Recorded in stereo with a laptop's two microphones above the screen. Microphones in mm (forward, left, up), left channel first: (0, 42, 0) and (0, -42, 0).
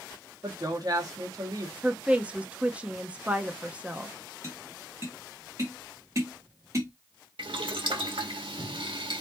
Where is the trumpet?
I don't hear a trumpet.